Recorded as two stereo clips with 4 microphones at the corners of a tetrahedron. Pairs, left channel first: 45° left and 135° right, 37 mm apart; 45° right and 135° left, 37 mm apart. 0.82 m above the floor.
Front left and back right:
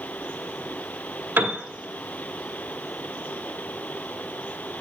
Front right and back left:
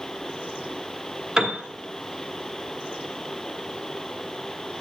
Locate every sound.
1.4 s a piano: 155° right, 1.2 m